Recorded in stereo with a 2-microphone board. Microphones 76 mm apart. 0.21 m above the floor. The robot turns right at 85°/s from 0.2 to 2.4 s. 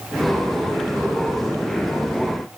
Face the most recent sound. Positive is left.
No sound to turn to.